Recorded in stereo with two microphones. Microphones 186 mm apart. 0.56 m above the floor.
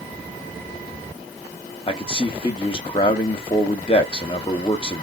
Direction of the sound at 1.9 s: 30° left (ahead or behind).